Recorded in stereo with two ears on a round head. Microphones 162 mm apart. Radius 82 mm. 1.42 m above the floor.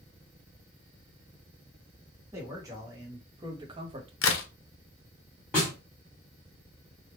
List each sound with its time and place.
2.3 s a man speaking: 20° right (ahead or behind), 1.5 m; by 4.1 s 30° right (ahead or behind), 0.6 m
4.2 s a crack: 75° left (ahead or behind), 0.7 m
5.5 s a snare drum: 5° left (ahead or behind), 2.0 m